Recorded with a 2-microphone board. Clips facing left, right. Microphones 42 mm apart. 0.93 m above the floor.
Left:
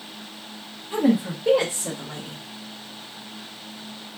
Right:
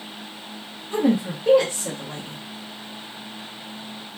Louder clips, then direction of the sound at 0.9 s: Even; 10° left (ahead or behind).